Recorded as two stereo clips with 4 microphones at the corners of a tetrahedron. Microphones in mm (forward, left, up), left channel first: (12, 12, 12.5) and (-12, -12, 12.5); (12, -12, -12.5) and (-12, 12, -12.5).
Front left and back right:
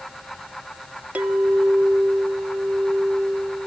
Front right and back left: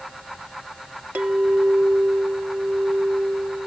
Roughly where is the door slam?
No door slam in this recording.